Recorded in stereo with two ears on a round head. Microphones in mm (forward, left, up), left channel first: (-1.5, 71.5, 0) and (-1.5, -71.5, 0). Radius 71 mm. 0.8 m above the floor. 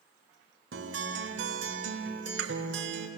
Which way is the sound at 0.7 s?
90° right.